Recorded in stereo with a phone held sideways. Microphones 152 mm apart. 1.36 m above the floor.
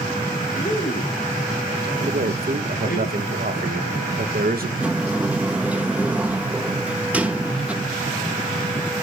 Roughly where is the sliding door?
Centre.